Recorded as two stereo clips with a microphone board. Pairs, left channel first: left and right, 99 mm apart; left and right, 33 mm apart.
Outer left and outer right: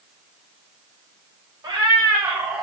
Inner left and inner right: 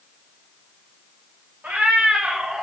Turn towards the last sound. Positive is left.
turn(degrees=-10)  # may be behind; listen again after turning